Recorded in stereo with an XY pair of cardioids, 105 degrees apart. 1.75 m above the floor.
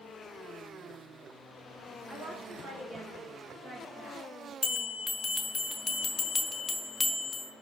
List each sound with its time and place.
2.1 s a woman speaking: 35° right, 2.0 m; by 4.2 s 50° right, 4 m
4.6 s a bell: 25° left, 0.9 m